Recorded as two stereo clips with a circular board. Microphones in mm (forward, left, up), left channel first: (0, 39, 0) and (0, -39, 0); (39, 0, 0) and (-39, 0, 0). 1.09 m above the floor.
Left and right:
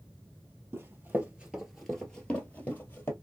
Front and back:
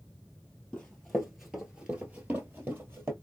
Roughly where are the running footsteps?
Right.